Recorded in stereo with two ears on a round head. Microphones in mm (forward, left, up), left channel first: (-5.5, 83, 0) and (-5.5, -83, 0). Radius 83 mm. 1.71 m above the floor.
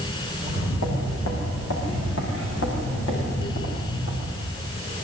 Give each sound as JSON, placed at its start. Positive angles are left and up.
{"t": 0.4, "sound": "footsteps", "side_deg": 80, "distance_m": 8.0}